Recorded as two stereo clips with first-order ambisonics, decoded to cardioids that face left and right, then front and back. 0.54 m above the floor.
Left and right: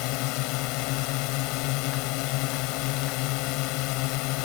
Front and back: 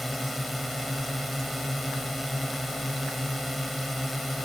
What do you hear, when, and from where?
0.0 s a drone: 90° left